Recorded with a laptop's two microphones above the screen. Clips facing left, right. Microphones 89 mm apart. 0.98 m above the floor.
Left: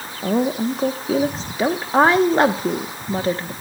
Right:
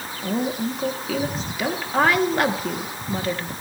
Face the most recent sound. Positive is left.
turn(degrees=30)  # may be behind; listen again after turning